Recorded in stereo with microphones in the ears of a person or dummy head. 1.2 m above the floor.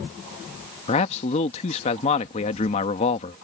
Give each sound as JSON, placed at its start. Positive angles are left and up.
{"t": 0.9, "sound": "a man speaking", "side_deg": 35}